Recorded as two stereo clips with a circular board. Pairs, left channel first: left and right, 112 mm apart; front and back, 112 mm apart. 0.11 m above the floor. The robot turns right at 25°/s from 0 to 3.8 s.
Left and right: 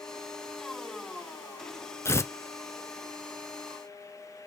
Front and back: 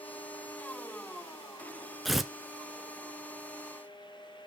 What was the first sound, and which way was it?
Tearing paper, 90° left.